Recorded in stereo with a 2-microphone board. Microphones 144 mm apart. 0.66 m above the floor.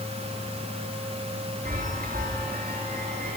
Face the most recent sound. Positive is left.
turn(degrees=-70)  # may be behind; listen again after turning